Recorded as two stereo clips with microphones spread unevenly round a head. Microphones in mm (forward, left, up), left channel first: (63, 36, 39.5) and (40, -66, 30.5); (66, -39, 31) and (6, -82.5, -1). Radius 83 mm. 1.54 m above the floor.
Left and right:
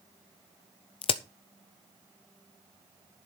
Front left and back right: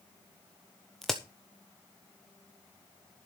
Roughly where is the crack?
Behind left.